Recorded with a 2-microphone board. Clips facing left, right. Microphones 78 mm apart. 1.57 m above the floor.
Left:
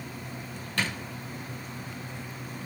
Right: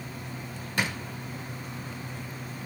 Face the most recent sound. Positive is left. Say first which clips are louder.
# right 1 dB
turn(degrees=-15)  # may be behind; listen again after turning